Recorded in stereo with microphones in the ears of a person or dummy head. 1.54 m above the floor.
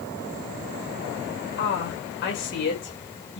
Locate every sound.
1.6 s a woman speaking: 60° left (ahead or behind), 6.5 m; by 3.4 s 55° left (ahead or behind), 6.5 m